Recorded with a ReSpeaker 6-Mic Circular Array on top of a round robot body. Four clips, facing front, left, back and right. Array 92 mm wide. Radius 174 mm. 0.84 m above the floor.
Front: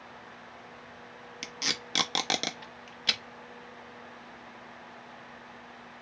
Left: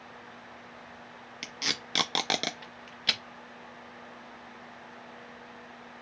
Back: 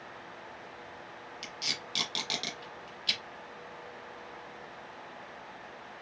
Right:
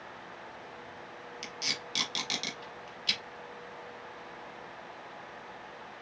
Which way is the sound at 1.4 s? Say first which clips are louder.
Left 5 dB, front 6 dB; 55° left.